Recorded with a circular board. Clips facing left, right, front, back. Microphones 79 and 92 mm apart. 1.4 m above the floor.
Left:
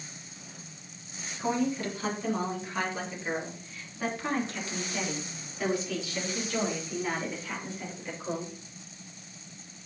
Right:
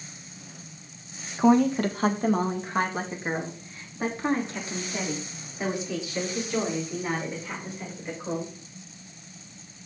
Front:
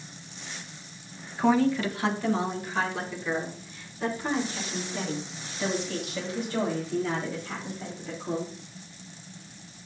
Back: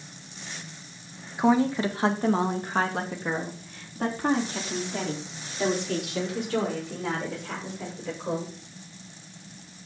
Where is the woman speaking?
110° right, 1.5 m; by 8.5 s 170° right, 6.5 m.